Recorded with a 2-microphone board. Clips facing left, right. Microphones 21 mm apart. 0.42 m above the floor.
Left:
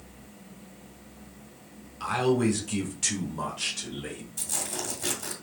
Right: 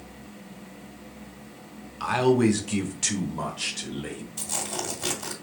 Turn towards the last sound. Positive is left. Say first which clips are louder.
# right 2 dB
turn(degrees=-10)  # may be behind; listen again after turning